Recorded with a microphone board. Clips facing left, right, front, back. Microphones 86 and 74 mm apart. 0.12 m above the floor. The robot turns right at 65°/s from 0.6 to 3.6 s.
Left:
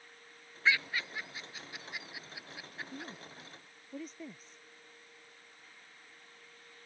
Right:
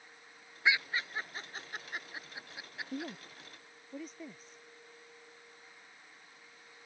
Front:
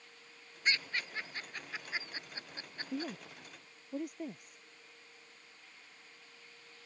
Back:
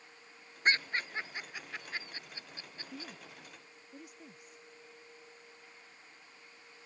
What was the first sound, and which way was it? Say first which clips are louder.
Laughter: even, back 4 dB; 160° right.